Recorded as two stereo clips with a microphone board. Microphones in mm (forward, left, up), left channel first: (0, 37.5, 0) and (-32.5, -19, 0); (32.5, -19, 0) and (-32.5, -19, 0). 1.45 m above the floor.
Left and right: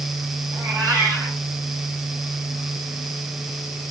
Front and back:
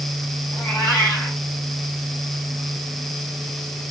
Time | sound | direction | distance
0.5 | a cat meowing | 65° right | 6.5 m